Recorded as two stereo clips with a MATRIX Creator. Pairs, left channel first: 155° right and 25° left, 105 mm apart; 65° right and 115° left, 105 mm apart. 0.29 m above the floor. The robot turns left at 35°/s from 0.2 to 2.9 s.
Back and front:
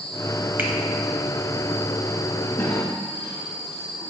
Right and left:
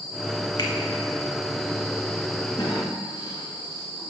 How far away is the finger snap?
About 0.9 m.